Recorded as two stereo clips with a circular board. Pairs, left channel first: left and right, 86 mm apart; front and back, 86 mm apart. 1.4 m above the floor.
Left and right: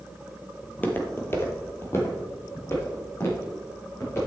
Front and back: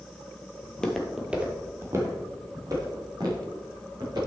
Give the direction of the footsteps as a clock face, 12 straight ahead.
11 o'clock.